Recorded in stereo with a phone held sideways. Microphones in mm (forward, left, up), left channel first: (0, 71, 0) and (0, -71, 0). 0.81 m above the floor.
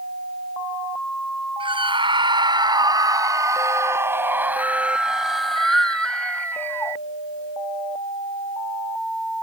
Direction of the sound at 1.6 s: 35° right (ahead or behind).